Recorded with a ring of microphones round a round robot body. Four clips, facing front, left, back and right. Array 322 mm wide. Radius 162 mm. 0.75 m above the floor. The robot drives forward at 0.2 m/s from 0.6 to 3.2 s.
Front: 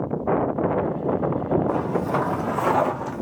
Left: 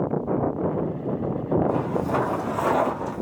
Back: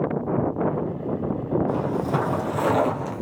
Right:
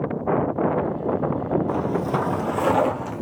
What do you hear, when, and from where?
1.7 s footsteps: 120° right, 2.5 m; by 3.2 s 130° right, 1.5 m